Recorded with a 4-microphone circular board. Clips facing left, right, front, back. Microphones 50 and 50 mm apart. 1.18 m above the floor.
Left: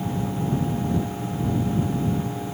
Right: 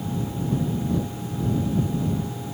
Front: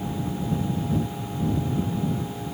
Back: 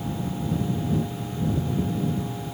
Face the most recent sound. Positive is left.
No sound to turn to.